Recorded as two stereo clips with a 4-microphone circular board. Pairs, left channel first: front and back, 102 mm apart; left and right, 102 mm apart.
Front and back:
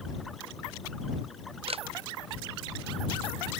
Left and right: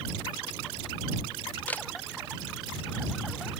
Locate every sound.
1.7 s a camera shutter: 165° left